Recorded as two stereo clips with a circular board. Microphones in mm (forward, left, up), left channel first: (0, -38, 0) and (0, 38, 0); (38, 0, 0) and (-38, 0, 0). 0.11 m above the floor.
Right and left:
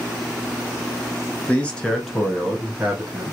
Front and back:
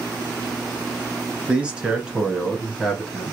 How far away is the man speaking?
About 1.1 m.